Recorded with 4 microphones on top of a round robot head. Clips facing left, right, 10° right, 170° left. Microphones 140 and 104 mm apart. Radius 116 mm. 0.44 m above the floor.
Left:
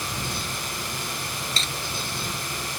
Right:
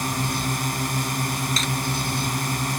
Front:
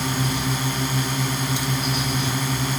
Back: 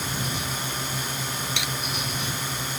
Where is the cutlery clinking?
150° left.